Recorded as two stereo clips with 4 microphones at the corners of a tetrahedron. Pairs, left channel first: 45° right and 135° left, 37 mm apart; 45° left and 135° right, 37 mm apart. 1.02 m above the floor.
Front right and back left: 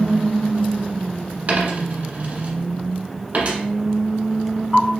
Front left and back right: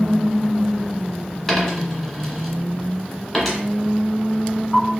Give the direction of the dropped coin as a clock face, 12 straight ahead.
8 o'clock.